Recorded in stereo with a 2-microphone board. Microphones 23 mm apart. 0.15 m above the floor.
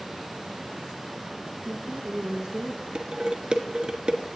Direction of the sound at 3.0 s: 40° right (ahead or behind).